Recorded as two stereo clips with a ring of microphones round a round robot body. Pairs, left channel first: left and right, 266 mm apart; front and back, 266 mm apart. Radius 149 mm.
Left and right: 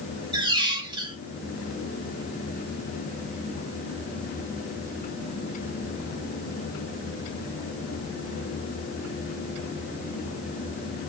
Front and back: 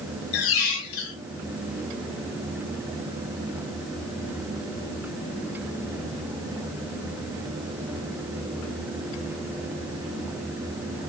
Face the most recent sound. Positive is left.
turn(degrees=-15)